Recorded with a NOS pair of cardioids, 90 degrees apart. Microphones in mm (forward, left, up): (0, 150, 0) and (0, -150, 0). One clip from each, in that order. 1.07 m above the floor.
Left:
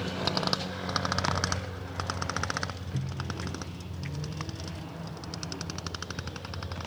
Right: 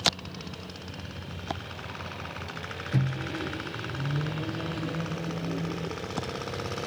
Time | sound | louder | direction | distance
2.9 | a microwave | right 5 dB | 40° right | 0.7 m